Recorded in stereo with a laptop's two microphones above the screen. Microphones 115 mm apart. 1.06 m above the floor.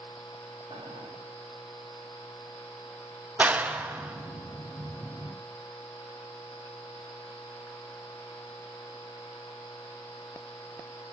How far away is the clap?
About 0.6 m.